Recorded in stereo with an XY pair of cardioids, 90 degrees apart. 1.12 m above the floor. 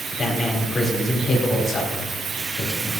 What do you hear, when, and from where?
0.1 s a man speaking: 40° left, 3 m